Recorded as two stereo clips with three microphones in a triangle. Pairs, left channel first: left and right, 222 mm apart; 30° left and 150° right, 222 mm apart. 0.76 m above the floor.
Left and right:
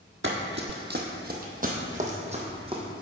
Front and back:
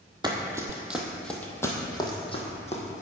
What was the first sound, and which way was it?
Running footsteps, 80° right.